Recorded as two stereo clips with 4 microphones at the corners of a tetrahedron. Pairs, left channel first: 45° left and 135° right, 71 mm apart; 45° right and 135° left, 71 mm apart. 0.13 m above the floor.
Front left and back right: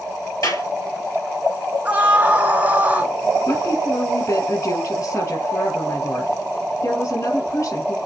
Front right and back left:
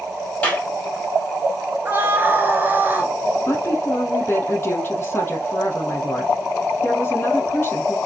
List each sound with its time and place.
0.4 s a clap: 25° left, 3 m
1.9 s a scream: 175° left, 1.8 m
3.5 s a woman speaking: 15° left, 3.5 m